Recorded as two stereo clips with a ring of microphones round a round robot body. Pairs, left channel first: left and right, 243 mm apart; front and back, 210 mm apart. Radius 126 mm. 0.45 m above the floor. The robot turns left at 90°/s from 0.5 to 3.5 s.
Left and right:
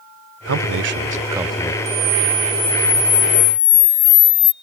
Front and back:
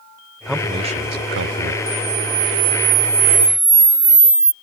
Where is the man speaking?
90° right; by 1.8 s 155° left.